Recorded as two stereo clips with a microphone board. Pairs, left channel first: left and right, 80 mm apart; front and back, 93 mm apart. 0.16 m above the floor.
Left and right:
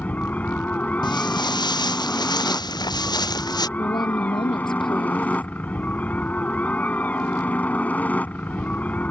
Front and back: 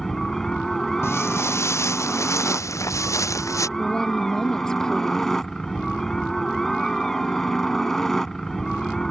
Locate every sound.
0.0 s a helicopter: 75° left
1.0 s footsteps: 65° left; by 3.7 s 55° left
3.8 s a woman speaking: 85° left